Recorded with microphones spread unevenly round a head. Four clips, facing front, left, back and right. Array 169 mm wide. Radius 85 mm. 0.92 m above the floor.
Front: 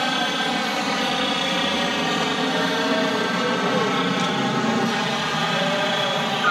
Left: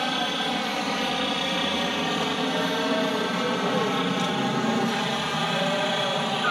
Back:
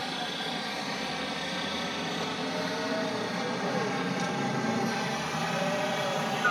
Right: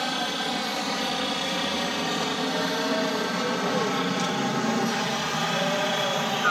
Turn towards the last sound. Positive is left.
turn(degrees=5)